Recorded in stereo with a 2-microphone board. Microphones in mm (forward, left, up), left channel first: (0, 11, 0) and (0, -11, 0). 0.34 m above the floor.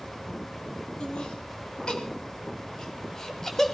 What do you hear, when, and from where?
1.0 s laughter: 50° left (ahead or behind), 2.5 m; by 3.8 s 10° left (ahead or behind), 1.7 m